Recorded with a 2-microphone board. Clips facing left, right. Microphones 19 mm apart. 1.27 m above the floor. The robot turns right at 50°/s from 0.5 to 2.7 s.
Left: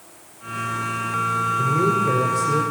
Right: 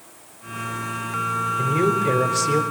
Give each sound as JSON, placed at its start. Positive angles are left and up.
{"t": 1.6, "sound": "a man speaking", "azimuth_deg": -145, "distance_m": 4.0}